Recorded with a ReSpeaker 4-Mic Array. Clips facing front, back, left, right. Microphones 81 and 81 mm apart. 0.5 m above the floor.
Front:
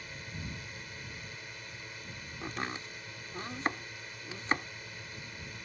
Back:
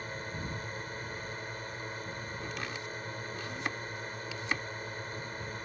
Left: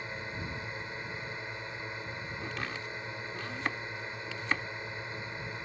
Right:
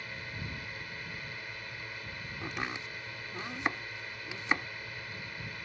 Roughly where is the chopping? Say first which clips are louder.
Front 4 dB, right 2 dB; ahead right.